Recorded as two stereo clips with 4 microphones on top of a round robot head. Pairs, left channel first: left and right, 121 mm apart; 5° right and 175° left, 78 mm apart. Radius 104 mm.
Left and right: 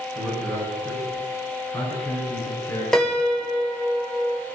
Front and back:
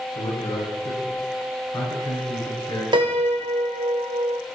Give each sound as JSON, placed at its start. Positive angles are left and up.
{"t": 0.1, "sound": "a man speaking", "azimuth_deg": 0, "distance_m": 7.0}
{"t": 2.9, "sound": "a piano", "azimuth_deg": 175, "distance_m": 1.7}